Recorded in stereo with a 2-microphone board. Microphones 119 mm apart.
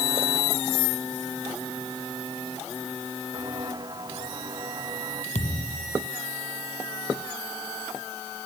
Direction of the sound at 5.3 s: 80° left.